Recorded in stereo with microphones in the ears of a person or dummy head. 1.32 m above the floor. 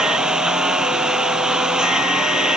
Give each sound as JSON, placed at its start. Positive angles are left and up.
{"t": 0.0, "sound": "a lawn mower", "side_deg": -10}